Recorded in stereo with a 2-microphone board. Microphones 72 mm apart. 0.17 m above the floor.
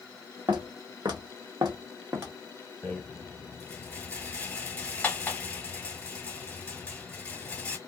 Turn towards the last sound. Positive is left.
turn(degrees=20)  # may be behind; listen again after turning